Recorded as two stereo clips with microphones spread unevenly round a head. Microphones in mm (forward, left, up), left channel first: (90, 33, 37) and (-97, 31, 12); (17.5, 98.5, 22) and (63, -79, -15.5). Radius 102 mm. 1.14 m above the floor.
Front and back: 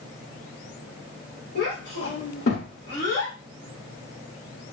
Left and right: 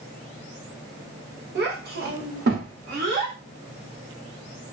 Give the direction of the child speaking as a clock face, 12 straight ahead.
1 o'clock.